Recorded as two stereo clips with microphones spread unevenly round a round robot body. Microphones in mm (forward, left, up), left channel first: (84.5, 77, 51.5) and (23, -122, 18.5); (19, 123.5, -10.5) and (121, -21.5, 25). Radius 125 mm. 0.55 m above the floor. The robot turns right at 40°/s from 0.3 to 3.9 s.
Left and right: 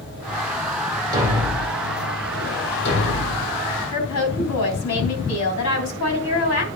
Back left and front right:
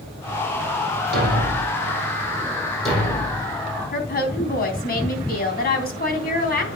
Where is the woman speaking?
95° left, 3.5 m.